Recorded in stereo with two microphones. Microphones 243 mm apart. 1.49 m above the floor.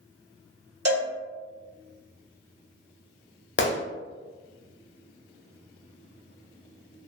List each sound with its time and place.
0.8 s a cowbell: 75° right (ahead or behind), 1.7 m
3.6 s a gunshot: 50° left (ahead or behind), 0.5 m